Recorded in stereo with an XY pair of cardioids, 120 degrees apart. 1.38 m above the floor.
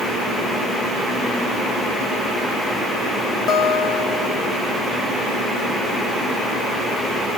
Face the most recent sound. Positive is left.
turn(degrees=45)